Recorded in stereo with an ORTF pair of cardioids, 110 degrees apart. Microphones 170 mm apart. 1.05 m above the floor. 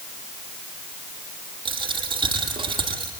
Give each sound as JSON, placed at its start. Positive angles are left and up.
{"t": 1.6, "sound": "a dropped coin", "azimuth_deg": -30, "distance_m": 9.0}